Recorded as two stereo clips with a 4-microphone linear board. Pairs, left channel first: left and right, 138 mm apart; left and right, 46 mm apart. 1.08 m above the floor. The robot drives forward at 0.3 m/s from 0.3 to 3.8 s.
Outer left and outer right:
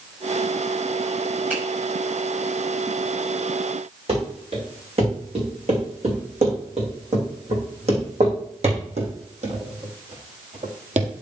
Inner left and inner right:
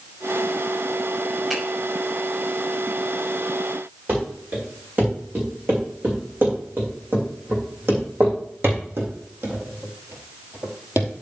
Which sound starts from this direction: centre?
A finger snap, at 1.5 s.